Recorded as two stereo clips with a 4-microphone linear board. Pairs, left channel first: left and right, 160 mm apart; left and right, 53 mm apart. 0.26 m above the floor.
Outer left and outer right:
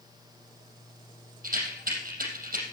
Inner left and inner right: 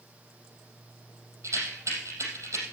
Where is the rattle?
65° right (ahead or behind), 4.5 m.